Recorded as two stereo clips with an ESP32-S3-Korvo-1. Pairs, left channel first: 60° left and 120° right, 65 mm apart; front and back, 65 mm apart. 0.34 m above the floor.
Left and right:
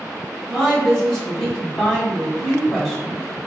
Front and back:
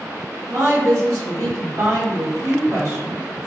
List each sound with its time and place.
0.5 s a woman speaking: 140° left, 1.8 m